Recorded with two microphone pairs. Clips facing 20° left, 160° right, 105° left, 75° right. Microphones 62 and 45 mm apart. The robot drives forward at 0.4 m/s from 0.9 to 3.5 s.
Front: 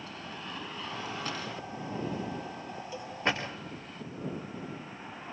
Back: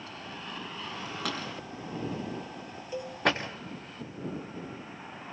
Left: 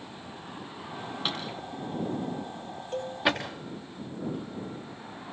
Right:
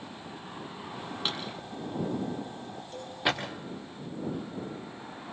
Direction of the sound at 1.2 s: 165° right.